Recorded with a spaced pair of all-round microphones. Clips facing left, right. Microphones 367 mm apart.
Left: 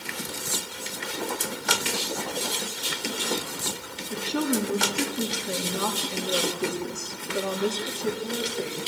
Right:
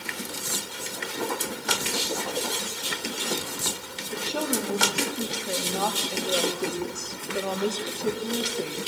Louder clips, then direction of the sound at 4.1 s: Left 3 dB; 25° left (ahead or behind).